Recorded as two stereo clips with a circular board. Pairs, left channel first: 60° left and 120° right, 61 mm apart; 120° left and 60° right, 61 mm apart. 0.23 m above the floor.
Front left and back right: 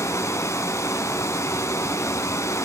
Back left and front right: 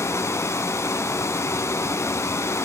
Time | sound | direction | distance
0.0 | running water | 90° left | 1.1 m